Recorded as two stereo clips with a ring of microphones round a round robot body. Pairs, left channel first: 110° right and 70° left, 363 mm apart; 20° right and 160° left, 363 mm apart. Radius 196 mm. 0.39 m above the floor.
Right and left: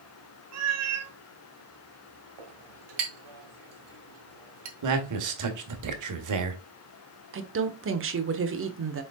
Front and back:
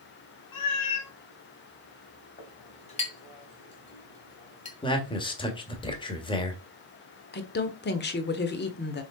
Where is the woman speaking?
30° left, 1.3 m.